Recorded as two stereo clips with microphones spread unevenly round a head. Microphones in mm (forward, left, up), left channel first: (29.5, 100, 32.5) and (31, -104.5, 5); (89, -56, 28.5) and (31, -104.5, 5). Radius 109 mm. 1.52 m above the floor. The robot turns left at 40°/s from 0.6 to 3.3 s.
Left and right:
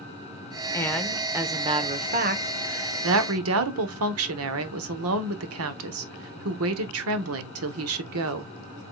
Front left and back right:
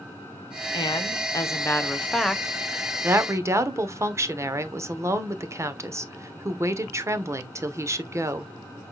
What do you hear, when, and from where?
0.7 s a woman speaking: 15° left, 1.1 m; by 8.5 s 90° right, 1.1 m